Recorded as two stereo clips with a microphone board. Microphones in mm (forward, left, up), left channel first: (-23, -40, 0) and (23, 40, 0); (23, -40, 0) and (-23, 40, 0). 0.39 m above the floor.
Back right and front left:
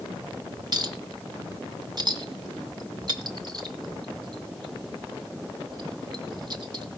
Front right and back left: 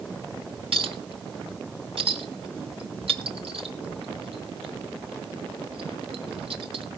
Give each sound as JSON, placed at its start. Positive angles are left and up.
{"t": 0.7, "sound": "a clink", "azimuth_deg": 105, "distance_m": 2.5}